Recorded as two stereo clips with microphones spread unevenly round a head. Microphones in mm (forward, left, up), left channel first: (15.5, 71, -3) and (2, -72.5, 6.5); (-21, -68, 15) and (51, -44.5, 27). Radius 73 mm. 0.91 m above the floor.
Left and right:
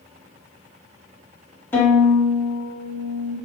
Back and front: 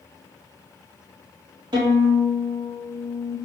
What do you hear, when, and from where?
1.7 s a violin: 15° left, 1.2 m